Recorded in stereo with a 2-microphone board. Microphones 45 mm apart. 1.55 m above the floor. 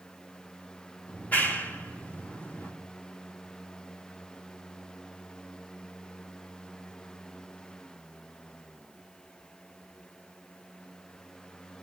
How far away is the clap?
About 4 m.